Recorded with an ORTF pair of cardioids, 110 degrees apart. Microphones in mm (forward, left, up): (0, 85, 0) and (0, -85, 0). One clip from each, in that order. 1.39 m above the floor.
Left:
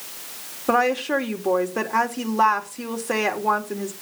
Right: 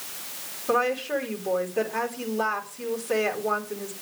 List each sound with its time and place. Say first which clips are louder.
0.7 s a woman speaking: left 4 dB; 60° left, 4 m